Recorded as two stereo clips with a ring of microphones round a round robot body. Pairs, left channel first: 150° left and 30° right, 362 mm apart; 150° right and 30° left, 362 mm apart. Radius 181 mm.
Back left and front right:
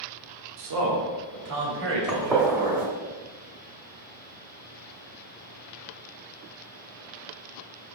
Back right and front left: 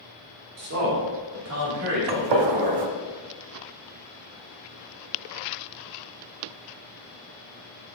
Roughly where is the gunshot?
Ahead left.